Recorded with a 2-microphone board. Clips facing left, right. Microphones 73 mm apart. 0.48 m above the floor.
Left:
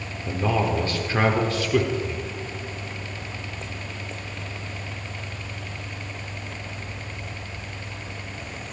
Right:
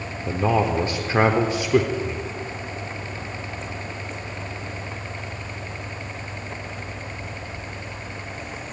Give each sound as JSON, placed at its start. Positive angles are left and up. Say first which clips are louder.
{"t": 0.3, "sound": "a man speaking", "louder": "right 3 dB", "side_deg": -25, "distance_m": 0.9}